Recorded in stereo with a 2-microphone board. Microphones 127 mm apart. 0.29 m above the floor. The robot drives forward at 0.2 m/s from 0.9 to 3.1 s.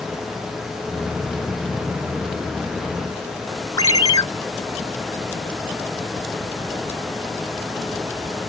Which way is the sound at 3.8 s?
30° left (ahead or behind).